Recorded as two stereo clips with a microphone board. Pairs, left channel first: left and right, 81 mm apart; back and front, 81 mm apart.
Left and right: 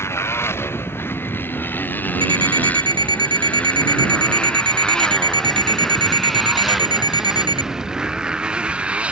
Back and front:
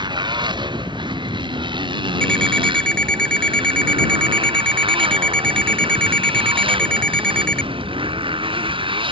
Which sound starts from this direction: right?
An alarm clock, at 2.2 s.